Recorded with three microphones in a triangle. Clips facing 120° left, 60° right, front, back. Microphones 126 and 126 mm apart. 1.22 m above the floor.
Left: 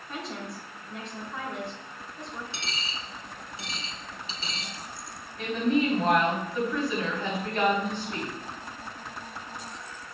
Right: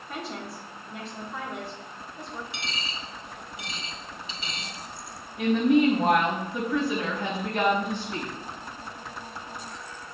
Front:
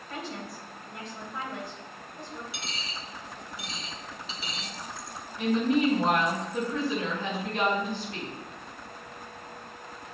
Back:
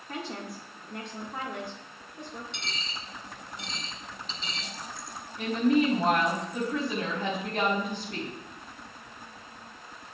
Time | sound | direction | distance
0.1 | a woman speaking | 150° right | 1.6 m
2.5 | a dropped coin | 80° left | 1.5 m
5.4 | a woman speaking | 140° right | 3.5 m